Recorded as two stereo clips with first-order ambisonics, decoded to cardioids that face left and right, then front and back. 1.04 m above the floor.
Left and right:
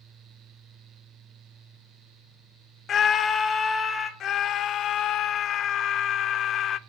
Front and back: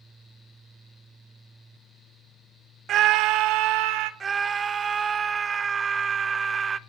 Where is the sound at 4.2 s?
120° left, 0.6 m.